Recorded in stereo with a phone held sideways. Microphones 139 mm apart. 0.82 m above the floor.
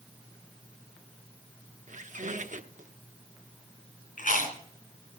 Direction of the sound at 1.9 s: 65° right (ahead or behind).